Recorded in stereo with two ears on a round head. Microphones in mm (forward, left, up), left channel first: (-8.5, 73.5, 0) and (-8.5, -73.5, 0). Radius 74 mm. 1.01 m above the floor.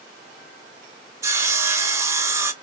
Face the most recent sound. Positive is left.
turn(degrees=-15)  # may be behind; listen again after turning